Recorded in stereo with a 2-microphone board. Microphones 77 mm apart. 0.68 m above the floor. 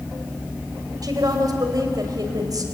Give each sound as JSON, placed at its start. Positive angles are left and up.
{"t": 1.0, "sound": "a woman speaking", "side_deg": -60, "distance_m": 3.0}